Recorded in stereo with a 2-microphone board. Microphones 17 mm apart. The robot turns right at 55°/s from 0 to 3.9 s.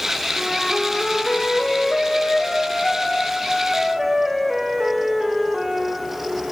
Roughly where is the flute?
Ahead.